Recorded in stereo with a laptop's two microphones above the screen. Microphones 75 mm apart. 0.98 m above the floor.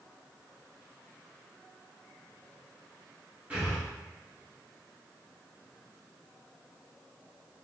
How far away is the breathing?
About 1.4 m.